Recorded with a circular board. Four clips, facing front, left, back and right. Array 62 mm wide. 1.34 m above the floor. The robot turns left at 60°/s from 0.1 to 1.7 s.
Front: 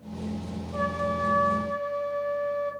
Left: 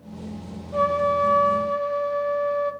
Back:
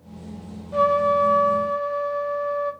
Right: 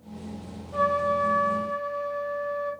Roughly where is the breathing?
I don't hear breathing.